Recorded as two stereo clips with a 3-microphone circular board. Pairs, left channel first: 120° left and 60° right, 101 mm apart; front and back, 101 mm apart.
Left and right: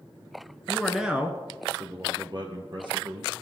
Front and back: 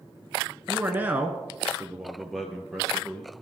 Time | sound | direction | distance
0.7 | a man speaking | 170° right | 1.1 m